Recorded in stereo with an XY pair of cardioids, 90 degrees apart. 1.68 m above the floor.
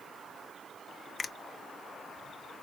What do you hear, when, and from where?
1.2 s a finger snap: 45° left, 0.6 m